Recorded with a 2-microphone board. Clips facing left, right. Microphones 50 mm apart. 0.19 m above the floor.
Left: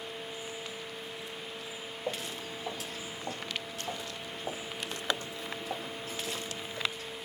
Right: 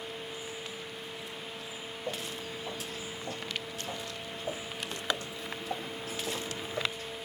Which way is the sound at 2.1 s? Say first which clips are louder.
Left 1 dB; 55° left (ahead or behind).